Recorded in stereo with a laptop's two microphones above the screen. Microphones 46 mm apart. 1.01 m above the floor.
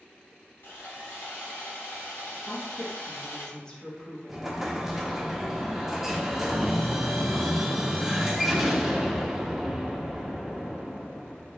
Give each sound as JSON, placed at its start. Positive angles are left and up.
{"t": 0.6, "sound": "sawing", "side_deg": 60, "distance_m": 1.0}
{"t": 2.5, "sound": "a woman speaking", "side_deg": 20, "distance_m": 0.8}
{"t": 4.3, "sound": "an explosion", "side_deg": -5, "distance_m": 0.5}